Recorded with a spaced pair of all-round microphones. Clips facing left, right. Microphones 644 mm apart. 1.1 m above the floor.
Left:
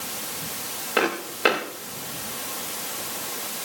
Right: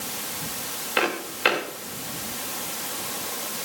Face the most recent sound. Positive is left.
turn(degrees=70)  # may be behind; listen again after turning